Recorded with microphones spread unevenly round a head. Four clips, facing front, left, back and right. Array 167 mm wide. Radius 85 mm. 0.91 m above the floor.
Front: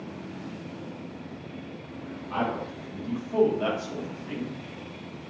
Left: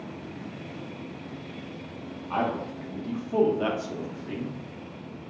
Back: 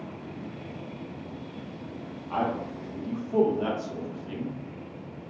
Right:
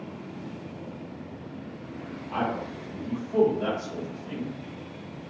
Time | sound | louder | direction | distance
2.3 | a man speaking | left 1 dB, back 1 dB | 130° left | 1.4 m